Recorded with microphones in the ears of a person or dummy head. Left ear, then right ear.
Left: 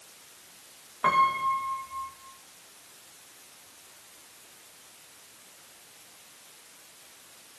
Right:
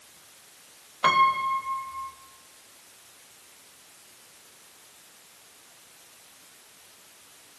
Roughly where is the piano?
Right.